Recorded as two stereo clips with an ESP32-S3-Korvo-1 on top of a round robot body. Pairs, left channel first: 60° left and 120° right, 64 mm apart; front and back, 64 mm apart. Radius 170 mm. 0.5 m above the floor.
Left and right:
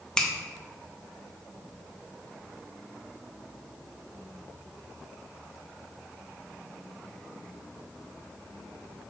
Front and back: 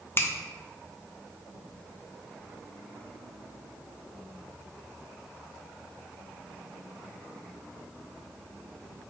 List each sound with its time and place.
0.2 s a finger snap: 15° right, 0.7 m